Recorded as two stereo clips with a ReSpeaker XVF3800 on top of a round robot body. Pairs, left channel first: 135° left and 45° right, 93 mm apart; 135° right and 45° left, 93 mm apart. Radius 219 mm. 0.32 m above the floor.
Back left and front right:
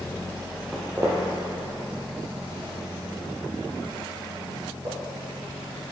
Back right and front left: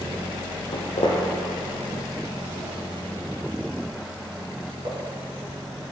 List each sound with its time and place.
0.7 s footsteps: 135° right, 0.7 m; by 4.9 s straight ahead, 3.5 m